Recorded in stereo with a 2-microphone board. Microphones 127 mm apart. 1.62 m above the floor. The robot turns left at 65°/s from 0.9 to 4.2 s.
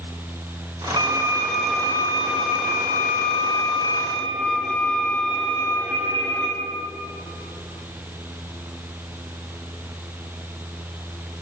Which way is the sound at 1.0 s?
140° right.